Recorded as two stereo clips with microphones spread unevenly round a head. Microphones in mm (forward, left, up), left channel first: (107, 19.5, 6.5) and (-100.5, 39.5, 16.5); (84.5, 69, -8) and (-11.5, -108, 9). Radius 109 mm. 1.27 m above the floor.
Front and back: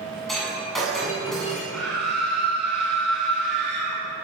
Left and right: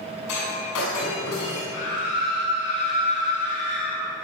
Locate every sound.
0.3 s breaking glass: 85° left, 8 m
1.7 s a scream: 80° left, 3 m